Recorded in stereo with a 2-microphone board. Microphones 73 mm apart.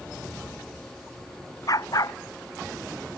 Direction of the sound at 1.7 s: 50° left (ahead or behind).